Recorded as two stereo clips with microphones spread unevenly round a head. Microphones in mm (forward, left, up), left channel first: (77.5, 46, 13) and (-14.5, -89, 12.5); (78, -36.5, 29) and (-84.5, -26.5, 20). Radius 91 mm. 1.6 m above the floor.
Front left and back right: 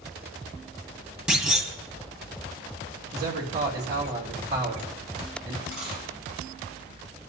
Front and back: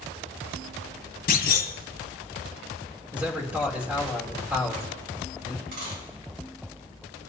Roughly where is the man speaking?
Right.